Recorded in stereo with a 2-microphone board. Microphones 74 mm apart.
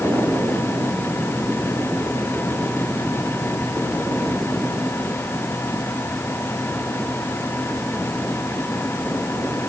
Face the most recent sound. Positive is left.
No sound to turn to.